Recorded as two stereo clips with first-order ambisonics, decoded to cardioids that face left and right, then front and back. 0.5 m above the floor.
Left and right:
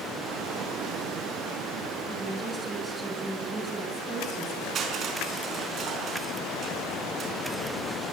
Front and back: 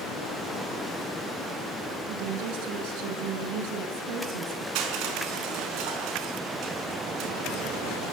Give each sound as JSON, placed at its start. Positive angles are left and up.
{"t": 2.1, "sound": "a woman speaking", "azimuth_deg": 180, "distance_m": 6.0}
{"t": 4.8, "sound": "crushing", "azimuth_deg": -150, "distance_m": 5.0}